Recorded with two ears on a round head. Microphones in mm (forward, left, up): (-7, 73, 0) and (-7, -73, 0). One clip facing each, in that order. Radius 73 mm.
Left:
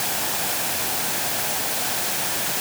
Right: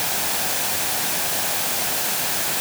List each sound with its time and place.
Only background noise.